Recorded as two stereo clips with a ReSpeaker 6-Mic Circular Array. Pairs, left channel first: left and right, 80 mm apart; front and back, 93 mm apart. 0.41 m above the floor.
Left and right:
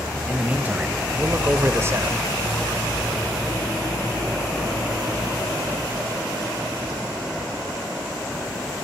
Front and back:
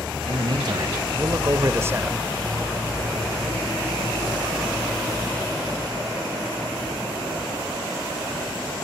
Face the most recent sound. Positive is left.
turn(degrees=-115)